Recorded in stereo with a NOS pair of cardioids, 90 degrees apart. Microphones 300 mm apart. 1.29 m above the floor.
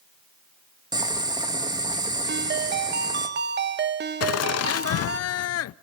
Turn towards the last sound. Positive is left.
turn(degrees=60)